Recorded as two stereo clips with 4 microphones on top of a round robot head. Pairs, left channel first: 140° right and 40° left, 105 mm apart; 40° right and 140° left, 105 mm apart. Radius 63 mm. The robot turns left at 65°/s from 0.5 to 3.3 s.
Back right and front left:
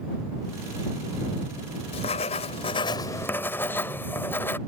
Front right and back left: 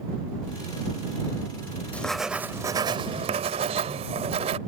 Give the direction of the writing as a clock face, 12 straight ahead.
4 o'clock.